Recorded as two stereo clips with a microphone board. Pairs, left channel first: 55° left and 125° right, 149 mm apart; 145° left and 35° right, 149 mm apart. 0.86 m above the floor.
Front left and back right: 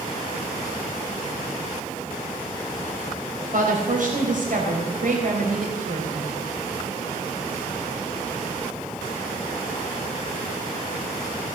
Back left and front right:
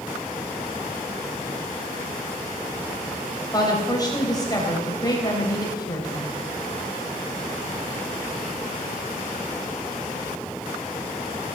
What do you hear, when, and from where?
3.5 s a woman speaking: 150° right, 3.5 m